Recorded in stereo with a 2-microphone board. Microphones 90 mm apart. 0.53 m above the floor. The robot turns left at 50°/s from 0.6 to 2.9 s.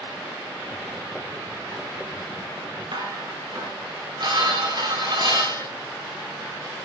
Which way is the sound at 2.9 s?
60° right (ahead or behind).